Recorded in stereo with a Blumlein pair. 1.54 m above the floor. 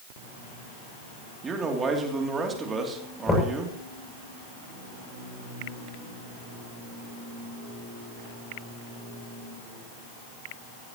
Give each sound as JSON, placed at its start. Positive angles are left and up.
{"t": 1.4, "sound": "a man speaking", "azimuth_deg": -20, "distance_m": 3.0}
{"t": 3.3, "sound": "knocking", "azimuth_deg": 10, "distance_m": 7.0}